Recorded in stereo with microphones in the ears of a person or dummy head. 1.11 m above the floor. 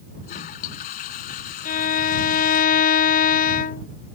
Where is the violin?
40° left (ahead or behind).